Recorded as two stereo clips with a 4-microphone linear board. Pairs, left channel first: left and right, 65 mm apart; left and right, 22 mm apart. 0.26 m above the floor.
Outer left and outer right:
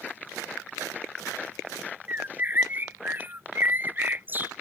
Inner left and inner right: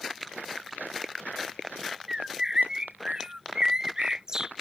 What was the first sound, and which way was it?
A bird, 30° right (ahead or behind).